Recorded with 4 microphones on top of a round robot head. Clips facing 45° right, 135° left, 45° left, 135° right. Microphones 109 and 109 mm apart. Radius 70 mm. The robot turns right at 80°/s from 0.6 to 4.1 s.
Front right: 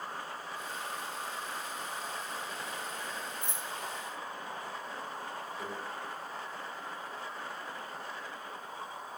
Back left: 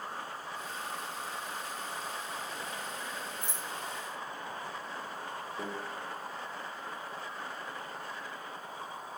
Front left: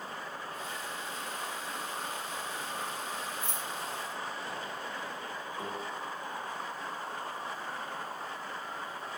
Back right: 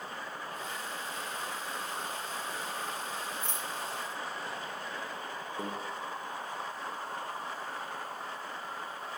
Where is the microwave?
175° right, 0.9 m.